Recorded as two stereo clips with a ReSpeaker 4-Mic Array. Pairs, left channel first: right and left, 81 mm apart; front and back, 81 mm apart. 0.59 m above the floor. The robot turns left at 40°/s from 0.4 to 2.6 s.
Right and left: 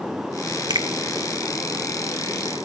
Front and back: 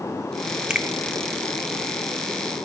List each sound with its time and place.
0.7 s a finger snap: 100° left, 0.9 m; by 0.9 s 95° left, 0.9 m